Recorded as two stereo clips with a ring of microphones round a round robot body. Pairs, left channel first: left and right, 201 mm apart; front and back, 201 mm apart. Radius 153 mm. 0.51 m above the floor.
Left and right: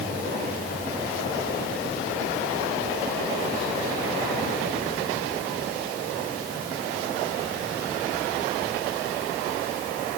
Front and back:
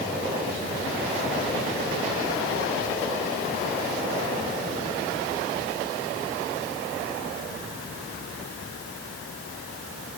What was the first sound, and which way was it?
Only background noise.